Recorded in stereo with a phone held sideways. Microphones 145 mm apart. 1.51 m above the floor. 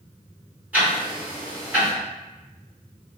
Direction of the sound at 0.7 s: 10° right (ahead or behind).